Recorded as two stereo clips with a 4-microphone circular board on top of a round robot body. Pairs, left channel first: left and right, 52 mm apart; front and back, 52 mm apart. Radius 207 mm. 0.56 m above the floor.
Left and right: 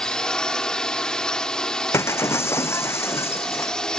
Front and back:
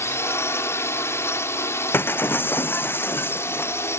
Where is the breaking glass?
50° left.